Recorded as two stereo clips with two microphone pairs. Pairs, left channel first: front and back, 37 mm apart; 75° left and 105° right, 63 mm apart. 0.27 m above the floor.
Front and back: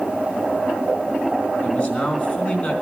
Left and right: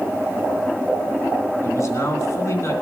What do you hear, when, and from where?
1.6 s a man speaking: 50° left, 3 m